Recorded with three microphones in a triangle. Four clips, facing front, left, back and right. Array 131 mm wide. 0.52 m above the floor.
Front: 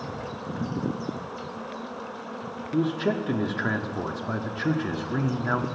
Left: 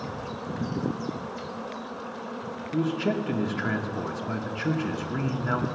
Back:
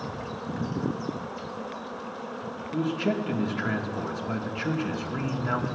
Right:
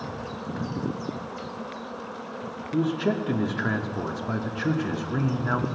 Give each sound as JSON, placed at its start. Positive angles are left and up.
{"t": 2.7, "sound": "a man speaking", "azimuth_deg": -25, "distance_m": 0.8}